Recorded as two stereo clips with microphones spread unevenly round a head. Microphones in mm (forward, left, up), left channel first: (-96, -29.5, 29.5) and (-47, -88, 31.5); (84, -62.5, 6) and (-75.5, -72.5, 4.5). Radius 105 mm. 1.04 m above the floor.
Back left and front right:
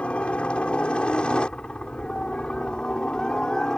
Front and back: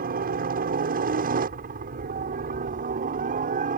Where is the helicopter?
155° right; by 3.8 s 150° right.